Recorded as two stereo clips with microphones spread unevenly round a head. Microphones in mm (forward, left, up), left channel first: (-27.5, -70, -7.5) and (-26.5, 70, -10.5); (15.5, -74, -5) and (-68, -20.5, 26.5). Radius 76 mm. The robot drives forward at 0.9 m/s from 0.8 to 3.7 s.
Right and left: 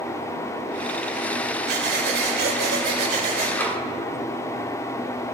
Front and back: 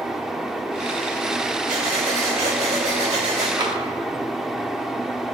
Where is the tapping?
165° right, 1.9 m.